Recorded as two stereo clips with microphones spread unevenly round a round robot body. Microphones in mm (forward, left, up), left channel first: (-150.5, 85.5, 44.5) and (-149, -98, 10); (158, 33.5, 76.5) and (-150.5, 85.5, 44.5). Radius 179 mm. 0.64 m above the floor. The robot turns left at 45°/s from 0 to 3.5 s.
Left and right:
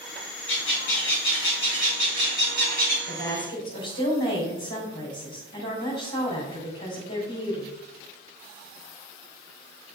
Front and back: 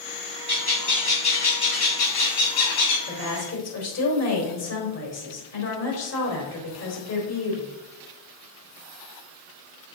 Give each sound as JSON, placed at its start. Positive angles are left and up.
{"t": 0.5, "sound": "a bird", "azimuth_deg": 95, "distance_m": 4.5}
{"t": 3.1, "sound": "a woman speaking", "azimuth_deg": 50, "distance_m": 3.5}